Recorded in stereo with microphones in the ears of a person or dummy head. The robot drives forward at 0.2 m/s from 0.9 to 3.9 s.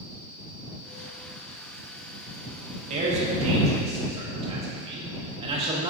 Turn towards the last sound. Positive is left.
turn(degrees=-30)  # may be behind; listen again after turning